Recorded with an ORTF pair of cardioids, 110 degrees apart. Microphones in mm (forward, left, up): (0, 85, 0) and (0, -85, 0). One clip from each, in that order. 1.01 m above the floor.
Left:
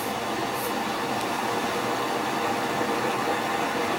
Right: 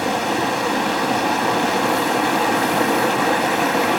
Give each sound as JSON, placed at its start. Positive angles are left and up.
{"t": 0.0, "sound": "running water", "azimuth_deg": -50, "distance_m": 0.8}